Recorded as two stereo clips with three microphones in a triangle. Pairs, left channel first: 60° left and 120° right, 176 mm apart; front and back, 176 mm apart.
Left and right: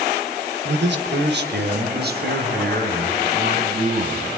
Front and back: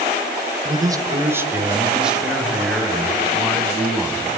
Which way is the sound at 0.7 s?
115° right.